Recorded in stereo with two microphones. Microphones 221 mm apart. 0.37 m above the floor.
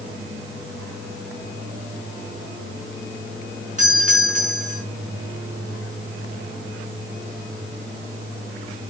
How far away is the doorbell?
About 5.5 m.